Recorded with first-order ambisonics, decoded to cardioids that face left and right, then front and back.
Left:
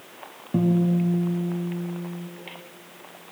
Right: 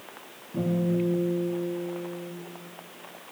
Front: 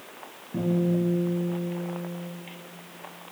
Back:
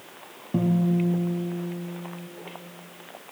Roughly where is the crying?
No crying in this recording.